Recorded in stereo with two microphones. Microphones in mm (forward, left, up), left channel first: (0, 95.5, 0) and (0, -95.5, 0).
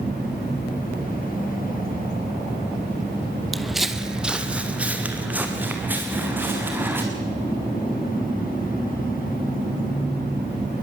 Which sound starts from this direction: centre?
Footsteps, at 3.5 s.